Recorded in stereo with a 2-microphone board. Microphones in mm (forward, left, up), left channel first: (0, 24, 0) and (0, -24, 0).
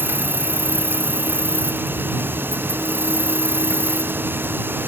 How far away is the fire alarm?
I don't hear a fire alarm.